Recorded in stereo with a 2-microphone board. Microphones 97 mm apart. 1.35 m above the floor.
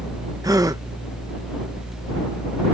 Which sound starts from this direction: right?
A gasp, at 0.4 s.